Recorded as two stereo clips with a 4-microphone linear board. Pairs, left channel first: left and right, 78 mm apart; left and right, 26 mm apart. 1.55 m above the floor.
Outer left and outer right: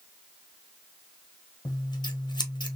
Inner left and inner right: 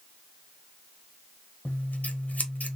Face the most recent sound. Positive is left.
turn(degrees=80)